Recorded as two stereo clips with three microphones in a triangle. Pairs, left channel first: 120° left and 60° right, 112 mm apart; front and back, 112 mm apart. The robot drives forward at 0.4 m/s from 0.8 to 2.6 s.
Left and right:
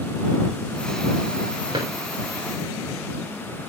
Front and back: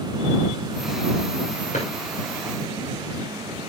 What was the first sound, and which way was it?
A drawer, 15° right.